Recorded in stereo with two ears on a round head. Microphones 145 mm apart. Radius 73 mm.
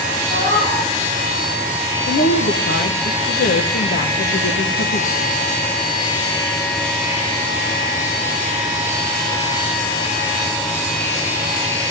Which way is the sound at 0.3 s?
75° left (ahead or behind).